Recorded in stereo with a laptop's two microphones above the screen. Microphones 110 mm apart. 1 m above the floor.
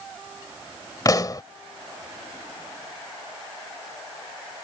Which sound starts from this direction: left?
A pop, at 1.1 s.